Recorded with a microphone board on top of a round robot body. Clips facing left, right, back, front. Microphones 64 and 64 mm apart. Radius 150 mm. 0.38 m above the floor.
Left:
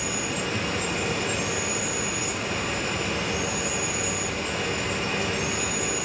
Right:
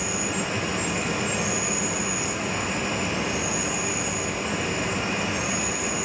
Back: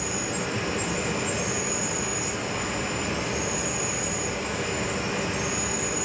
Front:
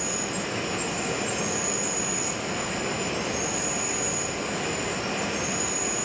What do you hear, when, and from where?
0.0 s an insect: 165° right, 5 m